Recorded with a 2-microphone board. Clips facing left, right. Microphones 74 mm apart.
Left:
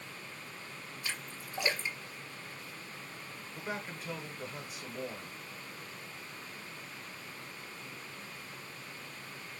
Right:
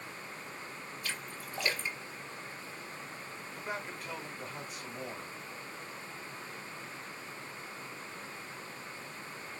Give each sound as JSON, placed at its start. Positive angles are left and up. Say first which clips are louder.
{"t": 1.0, "sound": "a splash", "louder": "even", "side_deg": 20, "distance_m": 1.6}
{"t": 3.5, "sound": "a man speaking", "louder": "even", "side_deg": 0, "distance_m": 1.0}